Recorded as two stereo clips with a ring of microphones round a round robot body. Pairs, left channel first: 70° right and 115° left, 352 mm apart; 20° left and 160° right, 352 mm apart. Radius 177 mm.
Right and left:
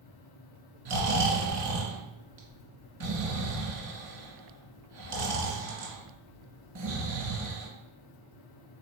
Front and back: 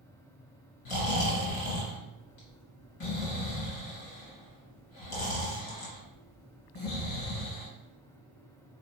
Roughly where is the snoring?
Ahead left.